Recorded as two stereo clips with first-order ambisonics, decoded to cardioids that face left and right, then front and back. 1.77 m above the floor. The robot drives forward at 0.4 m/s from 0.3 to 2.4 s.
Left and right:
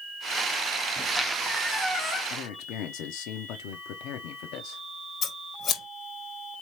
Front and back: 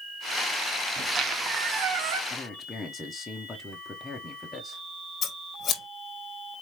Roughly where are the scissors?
Ahead left.